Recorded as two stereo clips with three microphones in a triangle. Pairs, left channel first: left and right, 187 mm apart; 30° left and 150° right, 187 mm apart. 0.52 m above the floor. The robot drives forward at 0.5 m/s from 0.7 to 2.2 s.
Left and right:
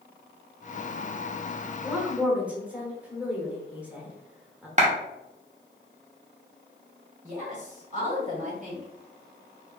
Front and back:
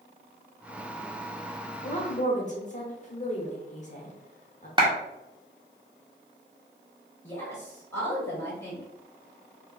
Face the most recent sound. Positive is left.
turn(degrees=-45)